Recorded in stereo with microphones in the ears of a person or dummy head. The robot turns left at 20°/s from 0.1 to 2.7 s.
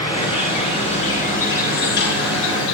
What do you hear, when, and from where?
0.0 s an insect: 160° left, 3 m; by 2.7 s 110° left, 3 m